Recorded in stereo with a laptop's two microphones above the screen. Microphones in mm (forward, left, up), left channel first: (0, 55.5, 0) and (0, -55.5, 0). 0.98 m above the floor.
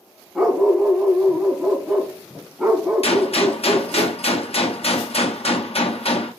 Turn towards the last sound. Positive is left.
turn(degrees=65)  # may be behind; listen again after turning